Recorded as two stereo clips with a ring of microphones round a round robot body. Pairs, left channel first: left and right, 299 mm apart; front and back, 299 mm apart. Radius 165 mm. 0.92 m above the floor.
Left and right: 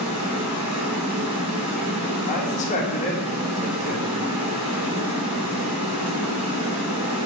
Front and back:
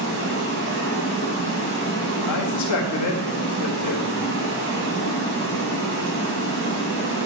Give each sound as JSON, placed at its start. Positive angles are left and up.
{"t": 0.0, "sound": "running water", "azimuth_deg": -130, "distance_m": 4.5}
{"t": 2.3, "sound": "a man speaking", "azimuth_deg": 25, "distance_m": 1.8}